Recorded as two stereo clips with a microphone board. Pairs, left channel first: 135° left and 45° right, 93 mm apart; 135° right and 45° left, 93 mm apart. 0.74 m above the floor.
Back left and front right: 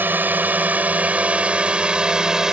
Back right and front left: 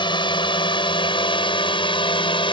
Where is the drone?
115° right; by 2.5 s 130° right.